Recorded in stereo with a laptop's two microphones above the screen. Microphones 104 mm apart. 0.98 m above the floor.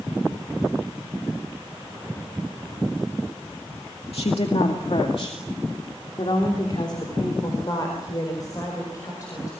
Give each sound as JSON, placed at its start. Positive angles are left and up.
{"t": 4.1, "sound": "a woman speaking", "side_deg": 70, "distance_m": 2.0}